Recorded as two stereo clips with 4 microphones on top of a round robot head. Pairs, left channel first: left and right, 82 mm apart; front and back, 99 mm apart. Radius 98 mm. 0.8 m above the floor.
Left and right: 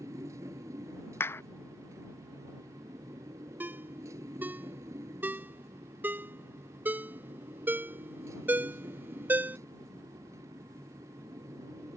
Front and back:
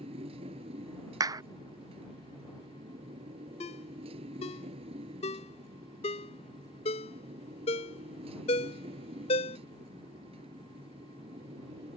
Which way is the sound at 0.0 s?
150° right.